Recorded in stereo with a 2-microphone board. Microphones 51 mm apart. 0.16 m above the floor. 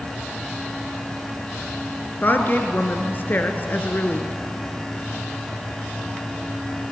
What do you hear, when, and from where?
2.2 s a woman speaking: 40° left (ahead or behind), 2 m